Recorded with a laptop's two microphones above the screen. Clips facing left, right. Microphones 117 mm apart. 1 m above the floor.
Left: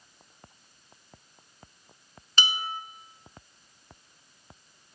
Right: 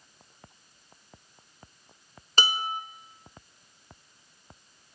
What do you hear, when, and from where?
2.4 s dishes clattering: 40° right (ahead or behind), 0.9 m